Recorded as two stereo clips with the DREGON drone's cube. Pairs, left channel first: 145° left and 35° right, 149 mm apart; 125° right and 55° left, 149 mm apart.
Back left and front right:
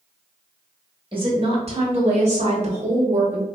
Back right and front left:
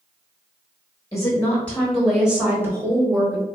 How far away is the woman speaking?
About 1.2 m.